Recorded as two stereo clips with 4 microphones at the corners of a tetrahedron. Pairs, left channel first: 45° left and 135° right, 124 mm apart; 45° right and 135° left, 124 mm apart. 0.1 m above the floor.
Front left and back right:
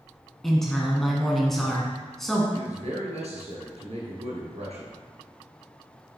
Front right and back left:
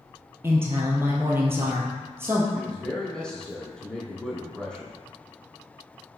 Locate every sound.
0.4 s a woman speaking: 130° left, 1.1 m
2.5 s a man speaking: 130° right, 2.0 m